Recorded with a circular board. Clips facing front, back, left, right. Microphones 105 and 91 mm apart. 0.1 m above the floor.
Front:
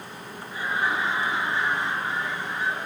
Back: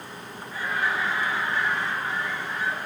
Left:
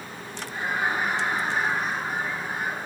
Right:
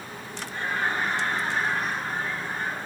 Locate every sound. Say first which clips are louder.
0.5 s laughter: front 1 dB, left 1 dB; 35° left, 1.4 m